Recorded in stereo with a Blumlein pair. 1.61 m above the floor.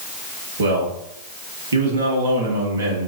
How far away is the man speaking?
About 1.7 m.